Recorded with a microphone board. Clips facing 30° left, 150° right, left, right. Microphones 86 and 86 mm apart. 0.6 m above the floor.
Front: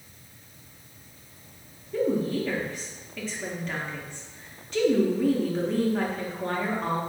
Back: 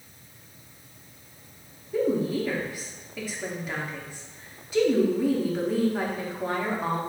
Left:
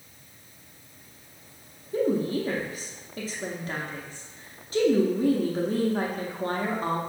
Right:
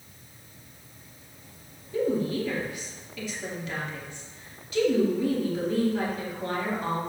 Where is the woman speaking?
130° left, 0.9 m.